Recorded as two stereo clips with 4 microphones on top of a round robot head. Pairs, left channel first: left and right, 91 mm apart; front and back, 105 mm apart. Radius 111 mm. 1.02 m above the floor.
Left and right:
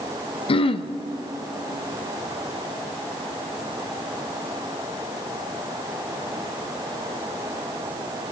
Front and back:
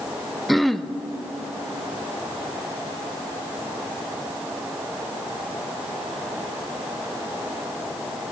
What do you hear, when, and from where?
0.5 s throat clearing: 90° left, 0.6 m